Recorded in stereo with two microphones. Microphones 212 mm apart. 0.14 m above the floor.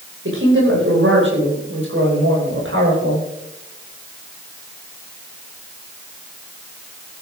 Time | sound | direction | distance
0.2 | a woman speaking | 75° right (ahead or behind) | 9.5 m